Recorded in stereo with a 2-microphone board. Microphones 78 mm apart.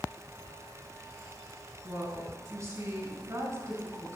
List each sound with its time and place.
1.8 s a woman speaking: 40° right (ahead or behind), 4 m